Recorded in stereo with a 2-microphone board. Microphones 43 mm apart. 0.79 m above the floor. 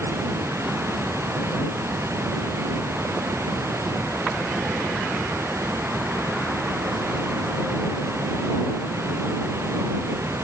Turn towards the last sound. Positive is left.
turn(degrees=-80)